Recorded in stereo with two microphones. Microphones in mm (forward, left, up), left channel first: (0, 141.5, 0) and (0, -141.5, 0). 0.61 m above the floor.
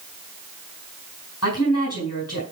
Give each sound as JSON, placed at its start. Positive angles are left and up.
{"t": 1.4, "sound": "a woman speaking", "side_deg": 65, "distance_m": 4.0}